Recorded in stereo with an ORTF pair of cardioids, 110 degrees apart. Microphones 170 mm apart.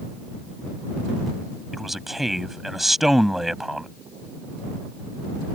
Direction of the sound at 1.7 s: Straight ahead.